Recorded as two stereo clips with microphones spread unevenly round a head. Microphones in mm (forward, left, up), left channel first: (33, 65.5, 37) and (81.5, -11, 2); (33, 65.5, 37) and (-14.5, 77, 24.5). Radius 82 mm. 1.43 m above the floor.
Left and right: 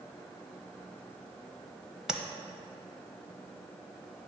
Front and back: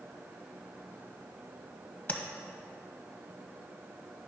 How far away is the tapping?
About 0.9 m.